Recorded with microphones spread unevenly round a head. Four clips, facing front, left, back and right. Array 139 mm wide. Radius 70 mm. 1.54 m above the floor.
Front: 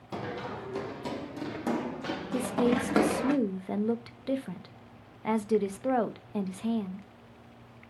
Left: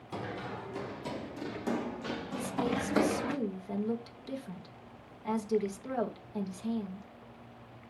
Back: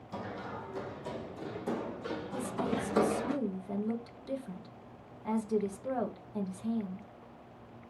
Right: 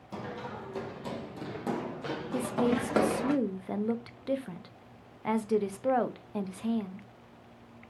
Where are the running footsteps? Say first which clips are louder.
Even, front 4 dB; 5° right, 3 m; by 3.3 s 35° right, 5.5 m.